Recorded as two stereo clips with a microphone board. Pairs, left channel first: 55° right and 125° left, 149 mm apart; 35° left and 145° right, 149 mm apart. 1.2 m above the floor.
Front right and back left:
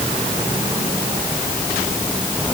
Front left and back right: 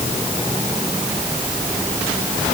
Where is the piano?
No piano in this recording.